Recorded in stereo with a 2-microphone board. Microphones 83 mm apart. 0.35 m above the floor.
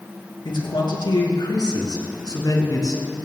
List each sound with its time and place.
0.5 s a man speaking: 65° left (ahead or behind), 4.5 m; by 3.0 s 45° left (ahead or behind), 3.5 m